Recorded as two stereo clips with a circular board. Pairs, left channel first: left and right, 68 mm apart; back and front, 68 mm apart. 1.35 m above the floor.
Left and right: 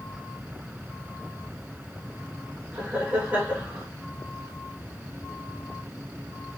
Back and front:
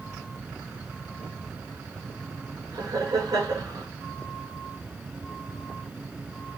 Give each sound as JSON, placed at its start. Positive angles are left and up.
{"t": 2.7, "sound": "laughter", "azimuth_deg": -20, "distance_m": 4.0}